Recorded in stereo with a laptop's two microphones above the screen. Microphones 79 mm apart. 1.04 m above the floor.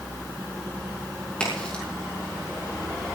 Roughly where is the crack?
Centre.